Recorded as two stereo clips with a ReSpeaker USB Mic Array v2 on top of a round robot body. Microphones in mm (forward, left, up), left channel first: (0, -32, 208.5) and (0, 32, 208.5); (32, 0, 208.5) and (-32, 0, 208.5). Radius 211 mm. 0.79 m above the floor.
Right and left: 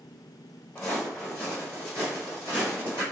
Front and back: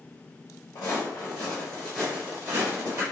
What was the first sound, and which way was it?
Footsteps, 20° right.